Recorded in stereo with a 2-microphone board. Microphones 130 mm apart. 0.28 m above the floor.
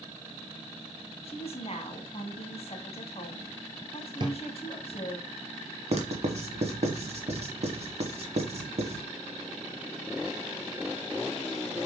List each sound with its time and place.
1.2 s a woman speaking: 50° left (ahead or behind), 1.7 m
4.2 s a drawer: 35° right (ahead or behind), 1.3 m
5.9 s writing: 55° right (ahead or behind), 1.4 m